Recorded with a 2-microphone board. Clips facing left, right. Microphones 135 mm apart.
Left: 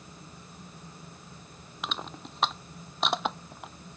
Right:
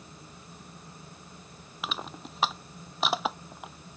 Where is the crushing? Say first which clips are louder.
Even; centre (ahead or behind).